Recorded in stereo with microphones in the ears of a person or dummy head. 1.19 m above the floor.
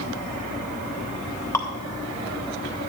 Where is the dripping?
15° left (ahead or behind), 1.3 m.